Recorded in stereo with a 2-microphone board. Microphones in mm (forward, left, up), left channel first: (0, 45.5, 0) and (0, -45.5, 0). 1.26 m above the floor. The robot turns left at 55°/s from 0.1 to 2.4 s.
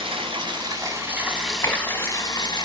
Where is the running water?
100° right, 6 m; by 2.6 s 130° left, 6 m.